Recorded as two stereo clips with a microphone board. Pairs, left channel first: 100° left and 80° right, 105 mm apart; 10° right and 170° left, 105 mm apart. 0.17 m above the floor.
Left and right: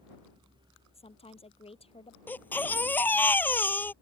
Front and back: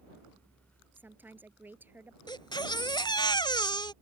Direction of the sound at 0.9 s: 100° left.